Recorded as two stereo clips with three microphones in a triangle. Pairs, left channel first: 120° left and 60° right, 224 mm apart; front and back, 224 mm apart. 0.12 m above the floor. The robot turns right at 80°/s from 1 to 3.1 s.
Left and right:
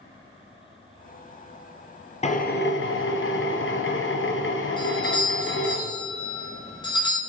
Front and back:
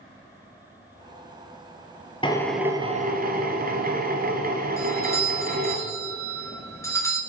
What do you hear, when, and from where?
2.2 s a drill: 65° left, 0.9 m; by 5.8 s 135° left, 0.9 m
4.8 s a doorbell: 65° left, 1.9 m